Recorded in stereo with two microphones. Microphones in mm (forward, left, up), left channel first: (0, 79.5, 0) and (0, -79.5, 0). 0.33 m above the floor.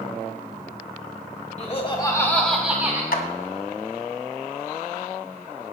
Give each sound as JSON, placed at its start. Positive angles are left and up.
{"t": 1.6, "sound": "laughter", "side_deg": 45, "distance_m": 1.6}
{"t": 3.1, "sound": "a clap", "side_deg": 65, "distance_m": 1.9}